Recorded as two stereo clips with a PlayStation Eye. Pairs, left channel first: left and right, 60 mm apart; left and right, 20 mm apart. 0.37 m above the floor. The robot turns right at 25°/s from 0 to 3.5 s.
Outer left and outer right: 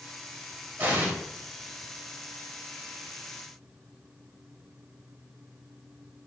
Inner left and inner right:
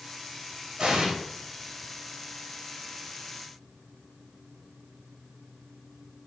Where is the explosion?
35° right (ahead or behind), 0.8 m; by 1.1 s 40° right (ahead or behind), 0.8 m.